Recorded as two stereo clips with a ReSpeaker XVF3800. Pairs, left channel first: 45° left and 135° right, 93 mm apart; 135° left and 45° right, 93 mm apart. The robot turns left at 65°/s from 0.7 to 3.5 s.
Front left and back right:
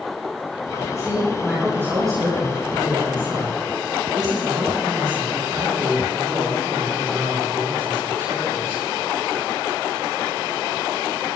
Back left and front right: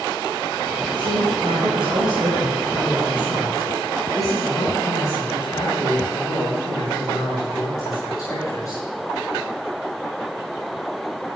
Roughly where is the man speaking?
Ahead.